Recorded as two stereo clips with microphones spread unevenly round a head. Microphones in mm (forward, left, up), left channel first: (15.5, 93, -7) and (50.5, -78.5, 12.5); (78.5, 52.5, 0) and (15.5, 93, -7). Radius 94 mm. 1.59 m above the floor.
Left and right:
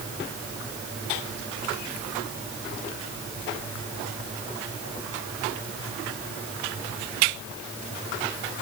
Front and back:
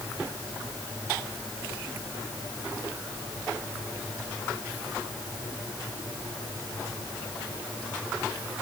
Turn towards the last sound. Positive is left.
No sound to turn to.